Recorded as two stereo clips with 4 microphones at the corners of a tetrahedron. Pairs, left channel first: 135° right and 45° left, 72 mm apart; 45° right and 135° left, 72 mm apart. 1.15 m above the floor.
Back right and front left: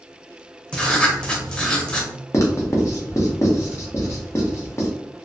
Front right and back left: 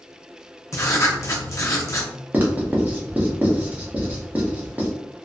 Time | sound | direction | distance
0.7 | writing | 65° right | 0.5 m
2.3 | writing | 165° right | 0.7 m